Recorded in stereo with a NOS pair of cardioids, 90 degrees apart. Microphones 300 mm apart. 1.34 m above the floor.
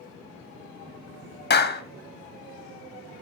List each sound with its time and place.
1.5 s a clap: 35° left, 1.7 m